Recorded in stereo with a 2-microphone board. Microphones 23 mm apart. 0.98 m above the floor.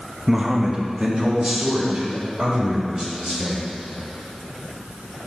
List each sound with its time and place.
0.3 s a man speaking: 10° right (ahead or behind), 0.8 m; by 3.7 s 40° right (ahead or behind), 4.5 m